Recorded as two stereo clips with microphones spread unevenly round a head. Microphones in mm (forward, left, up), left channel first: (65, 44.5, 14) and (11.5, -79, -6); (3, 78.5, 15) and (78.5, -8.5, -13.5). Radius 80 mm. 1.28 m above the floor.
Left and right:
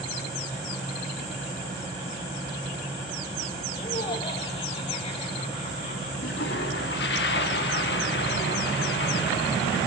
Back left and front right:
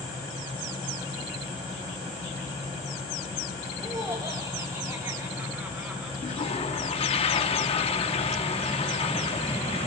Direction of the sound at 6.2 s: 95° left.